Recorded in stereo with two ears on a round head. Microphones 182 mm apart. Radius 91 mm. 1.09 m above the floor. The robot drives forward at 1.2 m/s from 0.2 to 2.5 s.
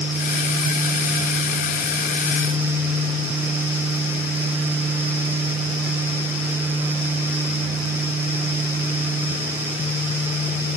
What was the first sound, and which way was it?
Only background noise.